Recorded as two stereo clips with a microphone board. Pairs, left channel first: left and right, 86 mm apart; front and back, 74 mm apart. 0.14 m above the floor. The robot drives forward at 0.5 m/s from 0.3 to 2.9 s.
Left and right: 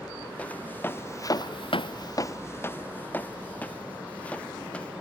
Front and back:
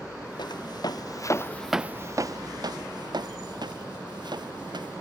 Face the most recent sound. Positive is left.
turn(degrees=165)